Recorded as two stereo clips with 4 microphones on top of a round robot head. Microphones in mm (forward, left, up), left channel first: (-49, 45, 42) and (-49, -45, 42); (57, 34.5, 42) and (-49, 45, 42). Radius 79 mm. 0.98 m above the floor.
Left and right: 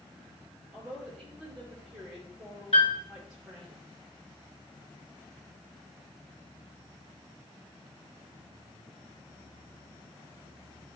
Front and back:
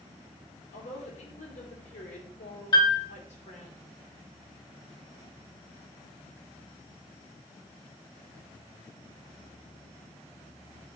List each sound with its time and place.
0.7 s a woman speaking: 5° right, 2.5 m
2.7 s a piano: 40° left, 2.0 m